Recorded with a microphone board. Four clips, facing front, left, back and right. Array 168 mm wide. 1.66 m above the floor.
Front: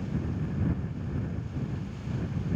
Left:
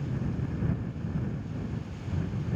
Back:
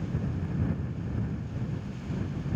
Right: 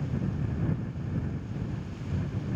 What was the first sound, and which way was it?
Only background noise.